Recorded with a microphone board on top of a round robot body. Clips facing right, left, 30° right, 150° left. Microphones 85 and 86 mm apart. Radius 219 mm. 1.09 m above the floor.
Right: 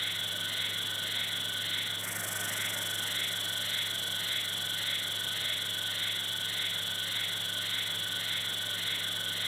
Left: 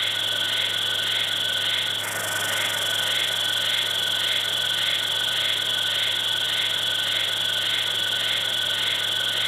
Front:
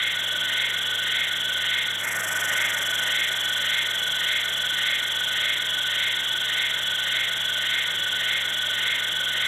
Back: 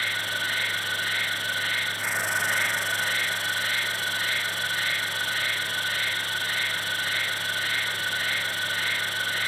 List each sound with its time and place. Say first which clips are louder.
0.0 s an insect: left 10 dB, even; 70° left, 0.8 m